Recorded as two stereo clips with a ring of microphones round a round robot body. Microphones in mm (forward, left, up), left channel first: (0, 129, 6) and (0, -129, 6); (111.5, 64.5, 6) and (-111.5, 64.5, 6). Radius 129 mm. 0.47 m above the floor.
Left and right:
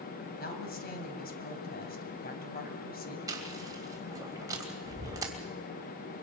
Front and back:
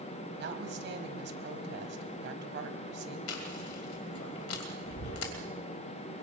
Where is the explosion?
I don't hear an explosion.